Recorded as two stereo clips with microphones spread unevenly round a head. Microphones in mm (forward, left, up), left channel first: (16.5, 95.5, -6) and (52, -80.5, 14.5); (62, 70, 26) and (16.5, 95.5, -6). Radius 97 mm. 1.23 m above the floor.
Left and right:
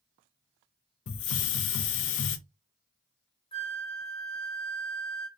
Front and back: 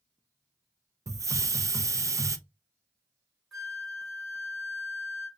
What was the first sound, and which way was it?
A hiss, 110° left.